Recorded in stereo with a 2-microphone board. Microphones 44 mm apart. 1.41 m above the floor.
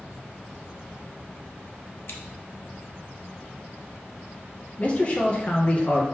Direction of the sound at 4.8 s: 35° left (ahead or behind).